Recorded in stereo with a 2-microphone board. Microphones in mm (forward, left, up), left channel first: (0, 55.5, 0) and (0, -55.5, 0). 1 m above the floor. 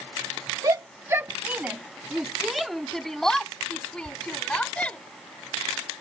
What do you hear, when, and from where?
0.6 s a shout: 35° right (ahead or behind); by 5.0 s 15° left (ahead or behind)